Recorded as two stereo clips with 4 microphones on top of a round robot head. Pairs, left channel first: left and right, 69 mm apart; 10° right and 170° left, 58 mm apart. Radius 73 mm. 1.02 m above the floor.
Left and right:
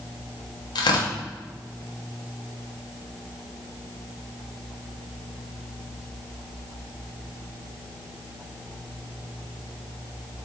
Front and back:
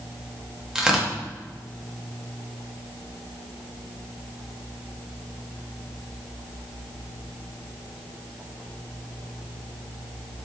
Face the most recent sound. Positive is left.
turn(degrees=90)